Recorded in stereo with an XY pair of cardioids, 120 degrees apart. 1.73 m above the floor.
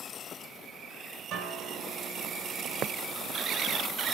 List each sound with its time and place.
1.3 s a guitar: 65° right, 1.5 m